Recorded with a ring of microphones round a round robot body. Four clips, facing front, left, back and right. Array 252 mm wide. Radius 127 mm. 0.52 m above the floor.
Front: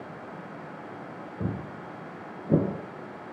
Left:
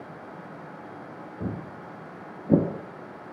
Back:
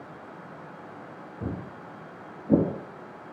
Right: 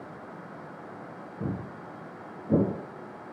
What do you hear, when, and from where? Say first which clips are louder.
1.4 s footsteps: even, front 1 dB; 20° left, 1.0 m; by 2.6 s 125° left, 0.5 m